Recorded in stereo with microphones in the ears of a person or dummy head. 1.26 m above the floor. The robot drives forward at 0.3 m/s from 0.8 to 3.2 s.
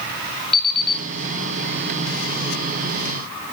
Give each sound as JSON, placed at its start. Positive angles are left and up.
{"t": 0.5, "sound": "an alarm clock", "side_deg": 0, "distance_m": 7.5}